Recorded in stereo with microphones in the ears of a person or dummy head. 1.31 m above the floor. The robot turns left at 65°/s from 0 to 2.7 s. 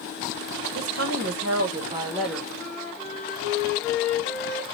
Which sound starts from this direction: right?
A woman speaking, at 0.8 s.